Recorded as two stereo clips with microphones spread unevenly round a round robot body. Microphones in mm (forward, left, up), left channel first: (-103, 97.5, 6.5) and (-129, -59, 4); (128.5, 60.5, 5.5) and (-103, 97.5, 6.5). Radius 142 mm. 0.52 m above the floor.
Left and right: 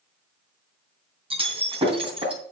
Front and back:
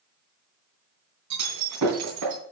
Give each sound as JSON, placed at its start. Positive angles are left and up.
{"t": 1.3, "sound": "breaking glass", "azimuth_deg": -155, "distance_m": 3.0}